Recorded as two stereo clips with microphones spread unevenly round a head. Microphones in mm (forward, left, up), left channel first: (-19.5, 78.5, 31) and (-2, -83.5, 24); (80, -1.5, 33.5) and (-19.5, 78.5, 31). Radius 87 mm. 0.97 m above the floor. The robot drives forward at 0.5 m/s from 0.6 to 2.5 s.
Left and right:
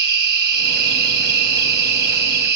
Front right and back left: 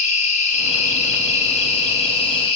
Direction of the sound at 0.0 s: 70° right.